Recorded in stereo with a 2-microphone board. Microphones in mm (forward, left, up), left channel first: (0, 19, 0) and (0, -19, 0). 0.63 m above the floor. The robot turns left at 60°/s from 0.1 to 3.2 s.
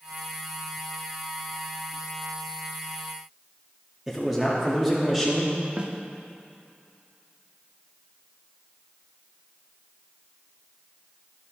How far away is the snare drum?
About 0.7 m.